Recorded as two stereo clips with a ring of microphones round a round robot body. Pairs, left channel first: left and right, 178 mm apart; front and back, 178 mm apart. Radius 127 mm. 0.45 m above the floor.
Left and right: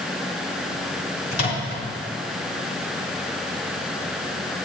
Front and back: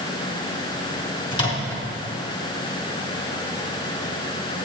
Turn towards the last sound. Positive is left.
turn(degrees=65)